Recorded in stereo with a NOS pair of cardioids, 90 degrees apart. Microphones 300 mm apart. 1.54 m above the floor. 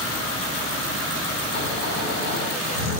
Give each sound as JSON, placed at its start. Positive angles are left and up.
{"t": 1.5, "sound": "snoring", "azimuth_deg": 60, "distance_m": 2.5}